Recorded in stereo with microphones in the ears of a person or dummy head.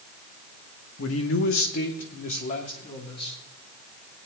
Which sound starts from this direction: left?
A man speaking, at 1.0 s.